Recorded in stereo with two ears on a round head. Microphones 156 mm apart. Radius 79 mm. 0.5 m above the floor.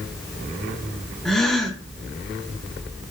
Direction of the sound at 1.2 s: Centre (ahead or behind).